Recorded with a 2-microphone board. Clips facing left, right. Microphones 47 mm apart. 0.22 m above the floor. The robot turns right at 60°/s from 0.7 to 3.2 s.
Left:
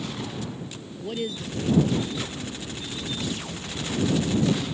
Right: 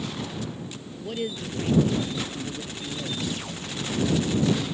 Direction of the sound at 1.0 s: 175° left.